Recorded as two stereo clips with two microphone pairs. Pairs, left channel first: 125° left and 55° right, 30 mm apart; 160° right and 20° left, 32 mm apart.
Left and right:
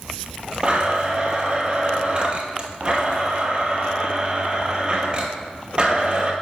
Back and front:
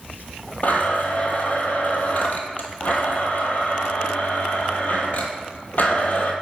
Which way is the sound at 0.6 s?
110° right.